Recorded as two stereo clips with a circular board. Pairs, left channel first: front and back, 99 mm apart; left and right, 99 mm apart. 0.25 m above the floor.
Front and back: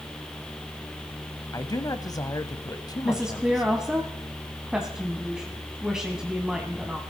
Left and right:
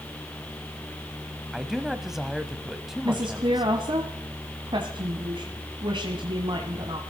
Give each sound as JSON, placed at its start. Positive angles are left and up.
{"t": 1.5, "sound": "a man speaking", "azimuth_deg": -5, "distance_m": 1.1}
{"t": 3.0, "sound": "a woman speaking", "azimuth_deg": -100, "distance_m": 1.4}